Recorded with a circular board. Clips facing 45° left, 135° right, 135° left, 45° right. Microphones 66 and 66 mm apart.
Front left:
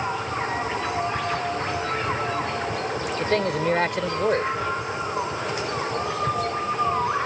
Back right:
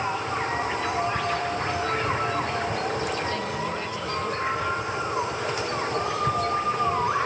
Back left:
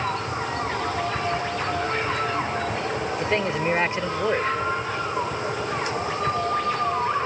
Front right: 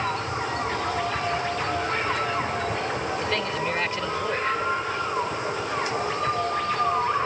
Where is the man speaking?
70° left.